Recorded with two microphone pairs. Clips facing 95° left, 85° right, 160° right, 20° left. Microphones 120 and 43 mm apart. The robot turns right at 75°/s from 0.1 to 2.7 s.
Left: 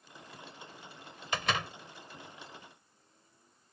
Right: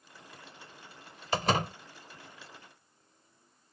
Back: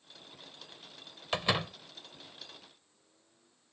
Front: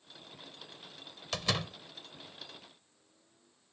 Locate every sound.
1.3 s a door slam: 120° right; by 1.8 s 85° right